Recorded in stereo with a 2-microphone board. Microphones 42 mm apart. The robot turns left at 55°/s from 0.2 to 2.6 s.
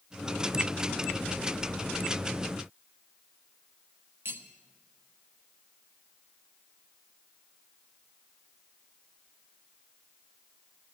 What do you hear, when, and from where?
4.2 s cutlery clinking: 65° right (ahead or behind), 1.3 m